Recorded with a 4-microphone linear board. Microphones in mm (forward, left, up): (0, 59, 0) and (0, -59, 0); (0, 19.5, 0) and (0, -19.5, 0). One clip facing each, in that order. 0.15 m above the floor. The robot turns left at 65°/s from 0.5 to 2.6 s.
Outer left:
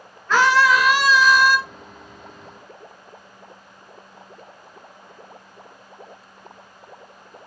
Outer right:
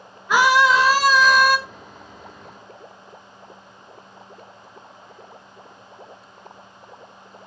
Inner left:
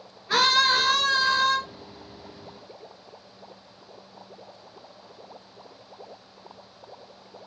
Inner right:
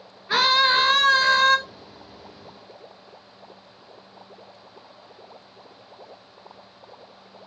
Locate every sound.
0.3 s a scream: 15° right, 1.9 m; by 1.6 s 85° right, 1.9 m